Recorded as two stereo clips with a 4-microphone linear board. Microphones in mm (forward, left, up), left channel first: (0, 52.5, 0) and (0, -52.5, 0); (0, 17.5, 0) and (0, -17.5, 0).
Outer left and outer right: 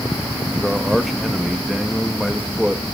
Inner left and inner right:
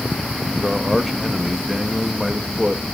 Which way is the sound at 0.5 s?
Centre (ahead or behind).